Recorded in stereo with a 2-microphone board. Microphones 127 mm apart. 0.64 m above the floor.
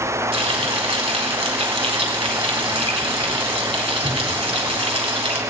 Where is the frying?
45° right (ahead or behind), 3 m.